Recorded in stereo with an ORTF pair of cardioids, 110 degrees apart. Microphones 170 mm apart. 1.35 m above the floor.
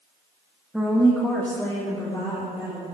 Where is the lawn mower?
I don't hear a lawn mower.